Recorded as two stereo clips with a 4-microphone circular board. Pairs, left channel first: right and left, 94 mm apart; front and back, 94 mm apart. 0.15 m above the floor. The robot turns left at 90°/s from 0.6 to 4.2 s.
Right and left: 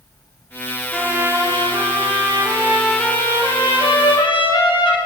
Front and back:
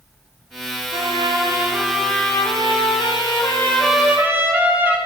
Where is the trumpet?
Straight behind, 3 m; by 5.0 s 115° right, 3 m.